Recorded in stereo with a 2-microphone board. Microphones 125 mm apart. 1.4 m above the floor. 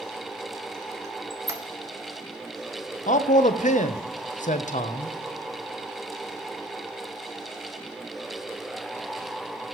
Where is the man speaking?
85° left, 0.7 m.